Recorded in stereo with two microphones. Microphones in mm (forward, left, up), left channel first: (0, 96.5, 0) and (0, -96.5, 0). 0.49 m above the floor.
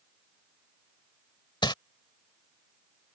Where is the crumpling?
25° left (ahead or behind).